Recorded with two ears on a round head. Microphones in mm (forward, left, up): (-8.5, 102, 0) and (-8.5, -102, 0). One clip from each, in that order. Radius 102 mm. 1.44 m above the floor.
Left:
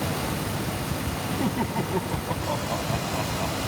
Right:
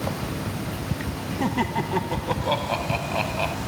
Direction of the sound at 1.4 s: 80° right.